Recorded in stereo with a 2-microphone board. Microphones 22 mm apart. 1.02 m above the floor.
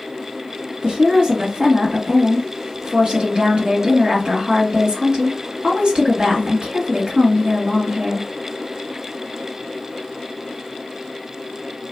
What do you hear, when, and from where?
0.8 s a woman speaking: 55° right (ahead or behind), 1.6 m